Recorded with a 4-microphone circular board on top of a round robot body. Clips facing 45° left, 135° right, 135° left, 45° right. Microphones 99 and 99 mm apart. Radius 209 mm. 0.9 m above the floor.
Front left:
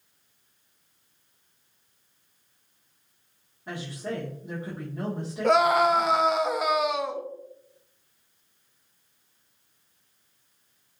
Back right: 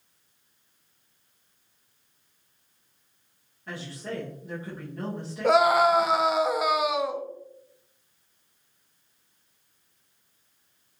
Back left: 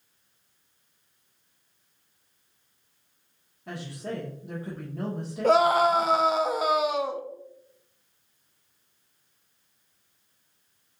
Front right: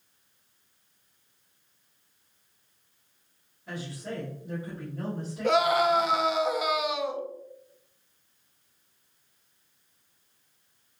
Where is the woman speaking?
115° left, 1.1 m.